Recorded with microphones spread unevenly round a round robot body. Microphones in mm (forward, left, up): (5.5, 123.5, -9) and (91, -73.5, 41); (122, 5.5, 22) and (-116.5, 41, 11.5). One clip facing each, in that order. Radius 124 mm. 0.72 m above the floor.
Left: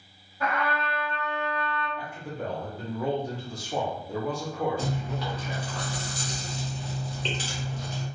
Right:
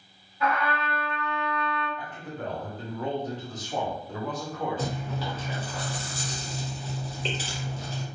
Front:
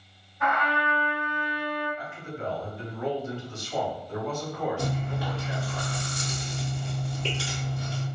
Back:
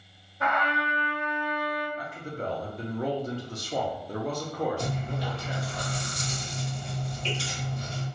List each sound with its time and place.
0.4 s a trumpet: 130° left, 1.6 m
2.0 s a man speaking: 170° left, 0.8 m
4.8 s chewing: 25° left, 1.6 m